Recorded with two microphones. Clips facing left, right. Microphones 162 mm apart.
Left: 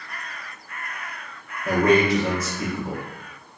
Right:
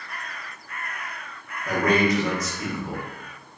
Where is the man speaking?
25° left (ahead or behind), 0.7 m.